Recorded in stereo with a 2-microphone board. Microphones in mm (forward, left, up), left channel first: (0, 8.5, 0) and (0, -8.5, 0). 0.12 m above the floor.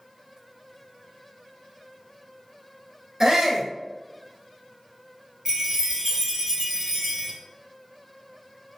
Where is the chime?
25° right (ahead or behind), 1.1 m.